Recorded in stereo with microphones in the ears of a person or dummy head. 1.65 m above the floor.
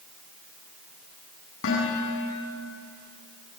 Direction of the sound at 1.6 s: 70° left (ahead or behind).